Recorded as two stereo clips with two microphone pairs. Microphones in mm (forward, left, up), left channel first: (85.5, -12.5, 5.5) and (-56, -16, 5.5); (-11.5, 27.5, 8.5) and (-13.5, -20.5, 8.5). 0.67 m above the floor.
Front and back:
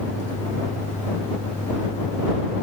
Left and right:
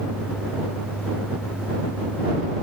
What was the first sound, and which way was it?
Only background noise.